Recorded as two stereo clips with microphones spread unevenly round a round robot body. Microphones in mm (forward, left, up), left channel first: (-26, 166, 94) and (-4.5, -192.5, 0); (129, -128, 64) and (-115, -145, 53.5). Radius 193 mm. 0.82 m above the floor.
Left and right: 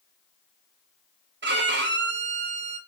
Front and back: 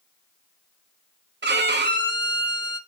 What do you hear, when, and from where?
1.4 s a violin: 135° right, 1.5 m